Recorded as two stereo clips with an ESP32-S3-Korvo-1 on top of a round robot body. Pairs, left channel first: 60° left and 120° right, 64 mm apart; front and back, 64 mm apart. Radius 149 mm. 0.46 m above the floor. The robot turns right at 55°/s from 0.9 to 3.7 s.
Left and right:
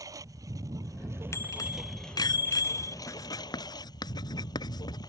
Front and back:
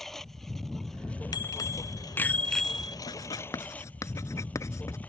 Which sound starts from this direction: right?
A lawn mower, at 0.0 s.